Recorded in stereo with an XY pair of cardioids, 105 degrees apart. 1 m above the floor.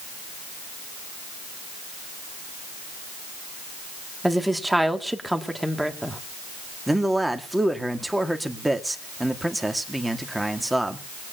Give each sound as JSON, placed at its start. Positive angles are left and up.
{"t": 4.2, "sound": "a woman speaking", "azimuth_deg": -5, "distance_m": 2.0}
{"t": 6.9, "sound": "a man speaking", "azimuth_deg": -10, "distance_m": 2.0}